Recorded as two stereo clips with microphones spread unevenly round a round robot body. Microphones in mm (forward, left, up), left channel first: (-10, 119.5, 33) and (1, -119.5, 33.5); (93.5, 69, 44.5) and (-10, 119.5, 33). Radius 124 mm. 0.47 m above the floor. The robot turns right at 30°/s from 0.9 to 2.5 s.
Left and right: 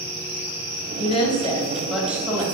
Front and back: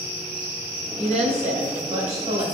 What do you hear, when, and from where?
1.0 s a woman speaking: 155° left, 2 m; by 2.5 s 165° right, 2 m